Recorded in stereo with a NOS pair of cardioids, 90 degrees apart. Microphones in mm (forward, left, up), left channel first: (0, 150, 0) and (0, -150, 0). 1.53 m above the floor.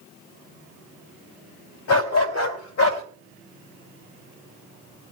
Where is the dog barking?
65° left, 4 m; by 3.0 s 70° left, 3.5 m.